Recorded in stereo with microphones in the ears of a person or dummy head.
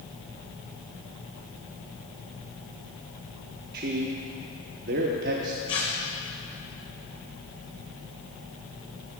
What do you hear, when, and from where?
3.7 s a man speaking: 50° right (ahead or behind), 1.0 m
5.7 s tearing paper: 25° left (ahead or behind), 1.1 m